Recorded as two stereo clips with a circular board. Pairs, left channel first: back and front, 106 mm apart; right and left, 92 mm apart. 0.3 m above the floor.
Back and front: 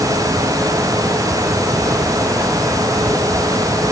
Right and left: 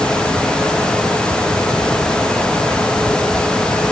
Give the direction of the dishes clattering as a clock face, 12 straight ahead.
I don't hear dishes clattering.